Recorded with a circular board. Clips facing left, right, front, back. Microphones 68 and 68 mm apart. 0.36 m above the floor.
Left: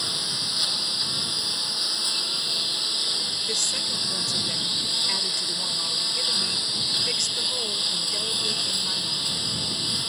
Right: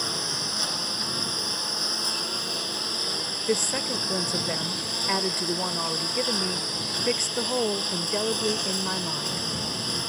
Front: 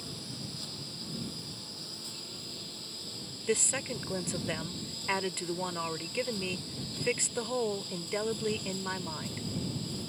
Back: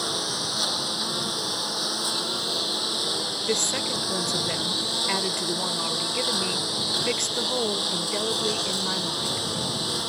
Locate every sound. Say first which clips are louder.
0.0 s a lawn mower: right 2 dB, back 13 dB; 165° right
3.5 s a woman speaking: right 9 dB, back 3 dB; 105° right